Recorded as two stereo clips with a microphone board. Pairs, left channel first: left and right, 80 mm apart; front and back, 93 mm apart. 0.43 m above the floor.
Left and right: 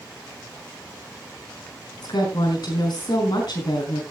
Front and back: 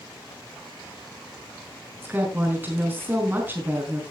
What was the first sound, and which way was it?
A woman speaking, 115° left.